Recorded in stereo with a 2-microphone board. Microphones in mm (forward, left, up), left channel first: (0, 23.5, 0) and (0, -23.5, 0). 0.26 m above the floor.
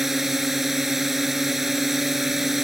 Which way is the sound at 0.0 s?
5° right (ahead or behind).